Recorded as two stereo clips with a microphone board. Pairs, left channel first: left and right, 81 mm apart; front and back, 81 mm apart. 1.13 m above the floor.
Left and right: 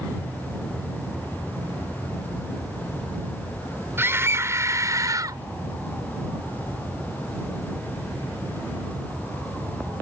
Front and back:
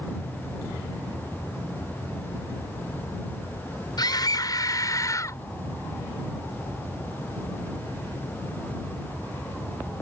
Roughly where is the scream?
Ahead right.